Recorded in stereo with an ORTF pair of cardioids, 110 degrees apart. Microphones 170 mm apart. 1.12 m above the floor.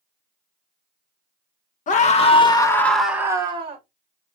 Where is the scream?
45° left, 1.2 m; by 3.8 s 35° right, 1.0 m.